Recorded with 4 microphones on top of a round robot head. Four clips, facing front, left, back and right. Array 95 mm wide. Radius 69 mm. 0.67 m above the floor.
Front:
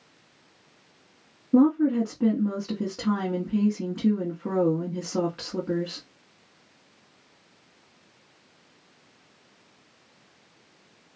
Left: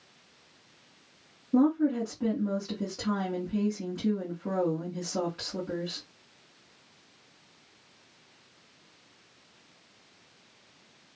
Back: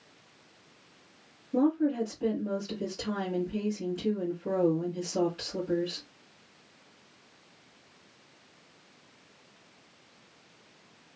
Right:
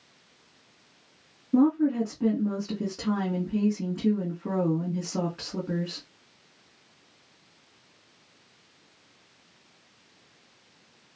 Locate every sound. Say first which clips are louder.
1.5 s a woman speaking: right 2 dB, front 6 dB; 5° right, 1.8 m